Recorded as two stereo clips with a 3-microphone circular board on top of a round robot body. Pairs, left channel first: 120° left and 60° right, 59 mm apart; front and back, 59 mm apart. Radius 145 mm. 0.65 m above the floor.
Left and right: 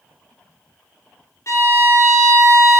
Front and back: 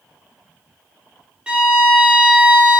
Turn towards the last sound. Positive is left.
turn(degrees=110)